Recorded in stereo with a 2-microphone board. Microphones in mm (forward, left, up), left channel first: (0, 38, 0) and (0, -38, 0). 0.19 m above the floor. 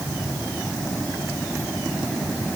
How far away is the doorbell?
I don't hear a doorbell.